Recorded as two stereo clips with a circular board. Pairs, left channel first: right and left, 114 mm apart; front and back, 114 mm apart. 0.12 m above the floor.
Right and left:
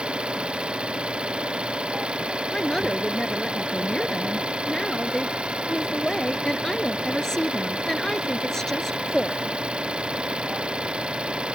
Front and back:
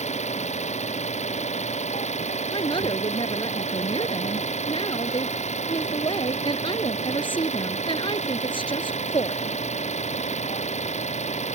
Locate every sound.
0.0 s an engine running: 10° left
2.5 s a woman speaking: 5° right